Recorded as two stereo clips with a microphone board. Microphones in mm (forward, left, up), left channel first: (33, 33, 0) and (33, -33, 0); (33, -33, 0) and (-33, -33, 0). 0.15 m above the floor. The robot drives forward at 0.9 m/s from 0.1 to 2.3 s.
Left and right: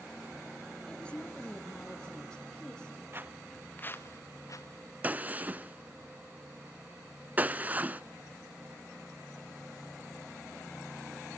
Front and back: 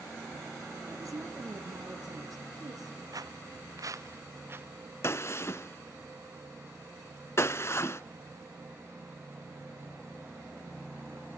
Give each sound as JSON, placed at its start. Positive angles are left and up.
{"t": 0.9, "sound": "a woman speaking", "azimuth_deg": 160, "distance_m": 3.0}
{"t": 3.1, "sound": "footsteps", "azimuth_deg": -145, "distance_m": 0.6}
{"t": 5.0, "sound": "a gunshot", "azimuth_deg": -30, "distance_m": 0.5}